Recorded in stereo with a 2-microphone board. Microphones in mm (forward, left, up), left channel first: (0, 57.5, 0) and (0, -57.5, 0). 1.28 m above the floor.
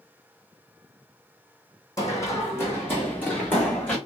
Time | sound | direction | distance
2.0 | running footsteps | 30° left (ahead or behind) | 2.5 m